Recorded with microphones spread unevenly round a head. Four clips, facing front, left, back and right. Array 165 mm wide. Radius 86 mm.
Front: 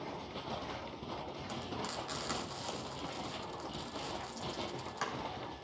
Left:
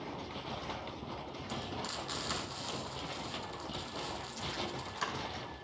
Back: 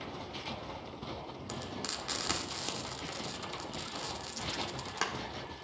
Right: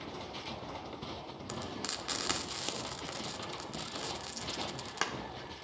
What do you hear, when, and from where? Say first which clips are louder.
1.5 s frying: even, even; 125° right, 2.5 m